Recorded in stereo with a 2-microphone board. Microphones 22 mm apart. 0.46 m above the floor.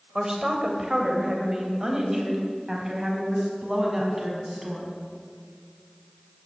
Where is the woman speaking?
30° right (ahead or behind), 2 m; by 4.9 s 20° right (ahead or behind), 4.5 m.